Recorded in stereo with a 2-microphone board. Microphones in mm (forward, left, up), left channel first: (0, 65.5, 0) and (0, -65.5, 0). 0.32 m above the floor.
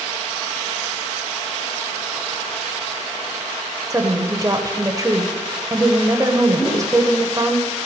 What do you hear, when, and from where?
3.9 s a woman speaking: 25° right (ahead or behind), 1.0 m
6.6 s a whoosh: 15° left (ahead or behind), 4 m